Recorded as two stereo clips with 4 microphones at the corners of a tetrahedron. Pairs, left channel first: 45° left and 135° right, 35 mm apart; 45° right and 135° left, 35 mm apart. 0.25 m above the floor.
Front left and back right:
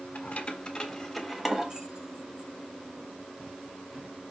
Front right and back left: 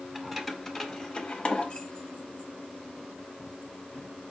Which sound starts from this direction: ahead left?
Keys jangling, at 0.1 s.